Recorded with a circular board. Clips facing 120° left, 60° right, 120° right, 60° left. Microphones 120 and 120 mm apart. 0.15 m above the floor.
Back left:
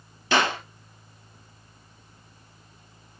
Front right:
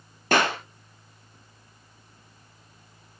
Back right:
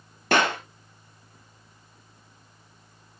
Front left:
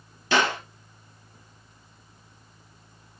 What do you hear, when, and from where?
0.3 s a clap: 95° right, 3 m